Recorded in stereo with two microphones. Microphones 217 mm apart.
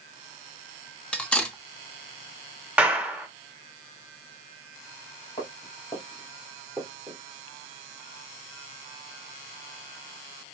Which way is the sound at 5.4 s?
30° left (ahead or behind).